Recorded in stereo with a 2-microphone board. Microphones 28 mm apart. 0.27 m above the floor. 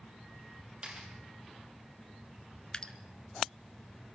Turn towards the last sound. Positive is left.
turn(degrees=25)  # may be behind; listen again after turning